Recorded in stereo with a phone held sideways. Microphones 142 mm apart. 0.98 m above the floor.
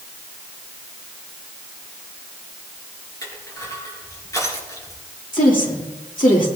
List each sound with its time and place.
3.2 s crushing: 25° left (ahead or behind), 4 m
5.3 s a woman speaking: 70° left (ahead or behind), 2.5 m